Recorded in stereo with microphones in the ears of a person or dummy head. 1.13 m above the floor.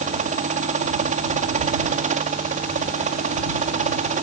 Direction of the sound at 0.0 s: 30° right (ahead or behind).